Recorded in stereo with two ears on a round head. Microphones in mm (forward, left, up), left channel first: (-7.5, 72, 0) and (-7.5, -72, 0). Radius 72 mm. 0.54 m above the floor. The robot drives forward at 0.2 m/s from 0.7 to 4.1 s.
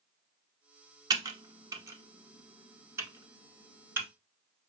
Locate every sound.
1.1 s typing on a keyboard: 25° right (ahead or behind), 0.7 m; by 4.1 s 15° right (ahead or behind), 1.2 m